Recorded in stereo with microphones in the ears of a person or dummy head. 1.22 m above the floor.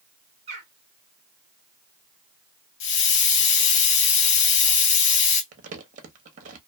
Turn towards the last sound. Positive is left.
turn(degrees=-45)  # may be behind; listen again after turning